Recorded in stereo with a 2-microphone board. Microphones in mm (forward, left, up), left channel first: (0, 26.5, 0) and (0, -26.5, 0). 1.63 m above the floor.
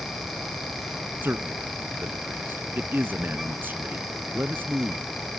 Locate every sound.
1.2 s a man speaking: 35° right (ahead or behind)